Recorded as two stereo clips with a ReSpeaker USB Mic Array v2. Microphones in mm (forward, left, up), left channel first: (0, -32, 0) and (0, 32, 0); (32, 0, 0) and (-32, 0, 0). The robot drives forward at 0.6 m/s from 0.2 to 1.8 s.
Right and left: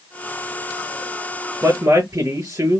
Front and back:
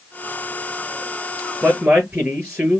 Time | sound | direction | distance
1.6 | a man speaking | 120° left | 4.5 m